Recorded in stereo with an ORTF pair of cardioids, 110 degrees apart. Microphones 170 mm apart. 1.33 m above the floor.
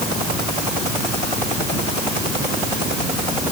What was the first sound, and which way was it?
Only background noise.